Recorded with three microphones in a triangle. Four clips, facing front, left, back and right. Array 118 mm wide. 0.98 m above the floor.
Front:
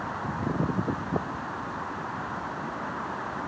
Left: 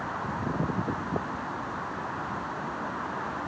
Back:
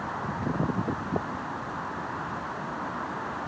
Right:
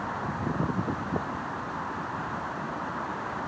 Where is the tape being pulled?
No tape being pulled in this recording.